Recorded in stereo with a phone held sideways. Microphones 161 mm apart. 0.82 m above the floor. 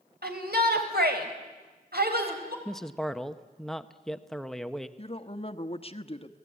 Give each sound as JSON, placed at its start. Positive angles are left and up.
{"t": 0.2, "sound": "a shout", "side_deg": -80, "distance_m": 4.5}
{"t": 2.6, "sound": "a man speaking", "side_deg": 0, "distance_m": 1.1}
{"t": 5.0, "sound": "a woman speaking", "side_deg": 35, "distance_m": 1.2}